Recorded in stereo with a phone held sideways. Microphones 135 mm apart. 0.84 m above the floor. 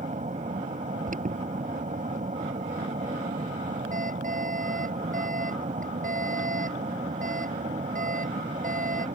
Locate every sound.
0.0 s an aircraft: 65° right (ahead or behind)
1.1 s an alarm: 75° right (ahead or behind)